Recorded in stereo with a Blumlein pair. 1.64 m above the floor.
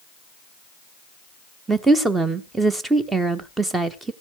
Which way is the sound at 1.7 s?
10° right.